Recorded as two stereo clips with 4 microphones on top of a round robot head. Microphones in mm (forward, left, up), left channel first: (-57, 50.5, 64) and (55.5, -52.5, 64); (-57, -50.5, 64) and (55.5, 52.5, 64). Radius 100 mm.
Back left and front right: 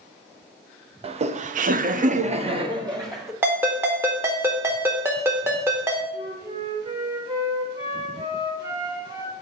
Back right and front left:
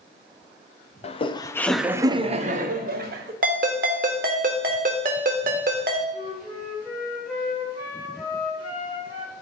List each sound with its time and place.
1.0 s laughter: 90° right, 0.7 m; by 3.3 s 30° left, 1.1 m
3.4 s a ringtone: 30° left, 0.7 m
6.1 s a flute: 105° right, 3 m